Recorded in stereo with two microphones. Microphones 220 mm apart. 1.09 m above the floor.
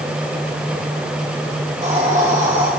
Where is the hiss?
35° right (ahead or behind), 4.5 m.